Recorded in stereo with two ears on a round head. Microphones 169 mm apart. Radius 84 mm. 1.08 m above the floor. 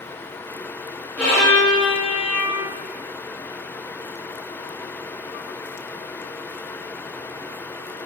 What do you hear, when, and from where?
1.2 s a violin: 10° left (ahead or behind), 0.7 m